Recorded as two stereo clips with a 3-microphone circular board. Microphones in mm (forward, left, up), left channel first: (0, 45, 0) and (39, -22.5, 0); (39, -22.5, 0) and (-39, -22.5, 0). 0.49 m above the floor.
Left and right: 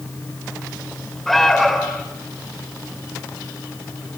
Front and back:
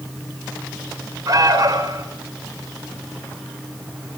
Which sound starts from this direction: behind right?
An alarm, at 1.3 s.